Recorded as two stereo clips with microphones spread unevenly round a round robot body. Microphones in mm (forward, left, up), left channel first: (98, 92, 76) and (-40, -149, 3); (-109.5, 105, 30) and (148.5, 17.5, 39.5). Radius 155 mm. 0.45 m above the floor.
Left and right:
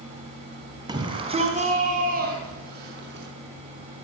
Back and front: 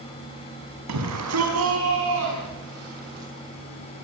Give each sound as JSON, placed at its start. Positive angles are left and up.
{"t": 0.9, "sound": "a shout", "azimuth_deg": -50, "distance_m": 5.0}